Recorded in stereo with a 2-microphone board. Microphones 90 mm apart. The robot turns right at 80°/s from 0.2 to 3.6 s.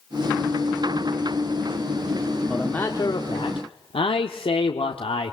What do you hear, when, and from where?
2.5 s a man speaking: 5° right, 1.5 m; by 5.3 s 85° left, 1.5 m